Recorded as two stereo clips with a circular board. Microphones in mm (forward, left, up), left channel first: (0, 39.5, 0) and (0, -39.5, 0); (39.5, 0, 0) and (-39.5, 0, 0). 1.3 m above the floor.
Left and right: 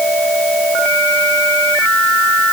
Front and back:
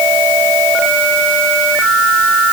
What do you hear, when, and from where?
Only background noise.